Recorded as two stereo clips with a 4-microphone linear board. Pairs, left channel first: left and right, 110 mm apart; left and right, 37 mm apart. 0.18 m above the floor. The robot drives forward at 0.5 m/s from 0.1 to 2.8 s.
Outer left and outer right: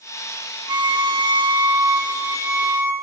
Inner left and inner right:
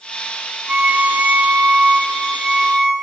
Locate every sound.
0.7 s a violin: 40° right (ahead or behind), 0.5 m; by 2.9 s 20° right (ahead or behind), 1.0 m